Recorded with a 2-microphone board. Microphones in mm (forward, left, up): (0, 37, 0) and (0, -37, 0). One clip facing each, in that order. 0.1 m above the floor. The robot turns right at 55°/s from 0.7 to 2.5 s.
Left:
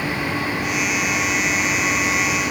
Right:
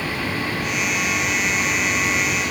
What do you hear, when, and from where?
Only background noise.